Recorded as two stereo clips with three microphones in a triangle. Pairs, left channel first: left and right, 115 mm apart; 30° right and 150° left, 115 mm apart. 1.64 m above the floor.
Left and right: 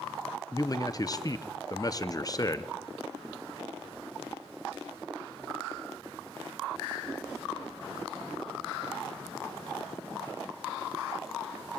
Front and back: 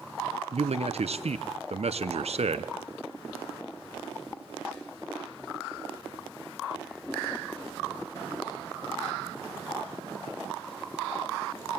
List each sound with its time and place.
0.5 s a man speaking: 145° left, 0.9 m